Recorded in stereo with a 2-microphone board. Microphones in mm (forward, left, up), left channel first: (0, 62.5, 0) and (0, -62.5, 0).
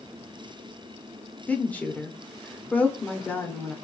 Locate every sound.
1.5 s a woman speaking: 10° left (ahead or behind), 0.8 m